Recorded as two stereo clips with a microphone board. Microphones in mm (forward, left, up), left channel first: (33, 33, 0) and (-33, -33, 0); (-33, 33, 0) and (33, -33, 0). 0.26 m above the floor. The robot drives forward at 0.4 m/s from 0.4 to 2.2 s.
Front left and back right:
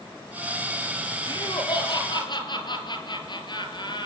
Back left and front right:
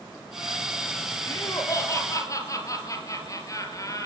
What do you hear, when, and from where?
1.3 s laughter: 80° left, 6.5 m